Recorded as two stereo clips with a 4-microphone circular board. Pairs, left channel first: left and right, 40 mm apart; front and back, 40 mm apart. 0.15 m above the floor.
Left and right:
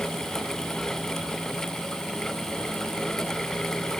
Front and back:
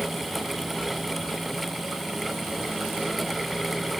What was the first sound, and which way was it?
Only background noise.